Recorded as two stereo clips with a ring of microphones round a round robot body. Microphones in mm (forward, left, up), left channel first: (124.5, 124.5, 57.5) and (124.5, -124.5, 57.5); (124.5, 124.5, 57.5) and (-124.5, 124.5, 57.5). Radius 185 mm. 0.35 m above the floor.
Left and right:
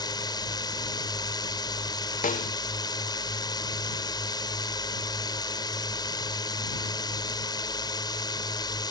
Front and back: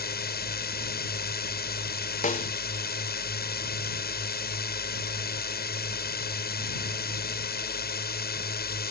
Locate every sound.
0.0 s a drone: 25° left
2.2 s a snare drum: 45° left